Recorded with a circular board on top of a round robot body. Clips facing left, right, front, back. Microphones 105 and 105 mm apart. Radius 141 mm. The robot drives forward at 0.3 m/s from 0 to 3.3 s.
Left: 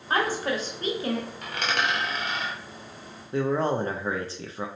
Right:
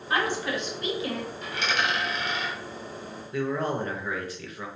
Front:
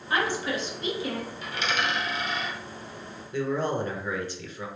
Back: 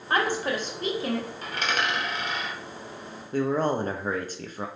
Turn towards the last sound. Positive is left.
turn(degrees=145)